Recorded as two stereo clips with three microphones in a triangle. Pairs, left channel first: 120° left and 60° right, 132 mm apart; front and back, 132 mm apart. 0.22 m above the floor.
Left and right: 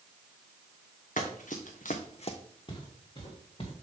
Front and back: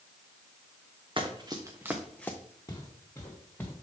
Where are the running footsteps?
130° left, 1.6 m; by 2.4 s 70° left, 0.9 m.